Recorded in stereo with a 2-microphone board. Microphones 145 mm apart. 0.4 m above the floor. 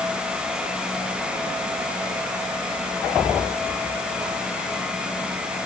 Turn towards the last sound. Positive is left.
No sound to turn to.